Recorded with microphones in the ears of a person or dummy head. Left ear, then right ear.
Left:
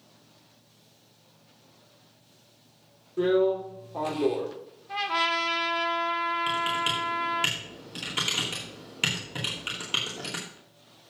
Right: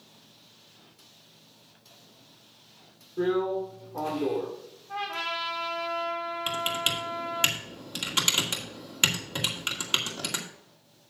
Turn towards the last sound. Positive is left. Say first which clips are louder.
# left 2 dB
turn(degrees=-25)  # may be behind; listen again after turning